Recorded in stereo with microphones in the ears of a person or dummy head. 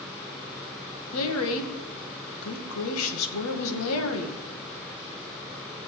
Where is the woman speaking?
85° left, 2 m.